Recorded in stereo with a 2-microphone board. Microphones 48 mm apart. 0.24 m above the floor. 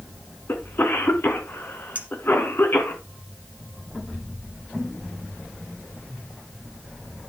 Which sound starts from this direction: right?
A clink, at 1.9 s.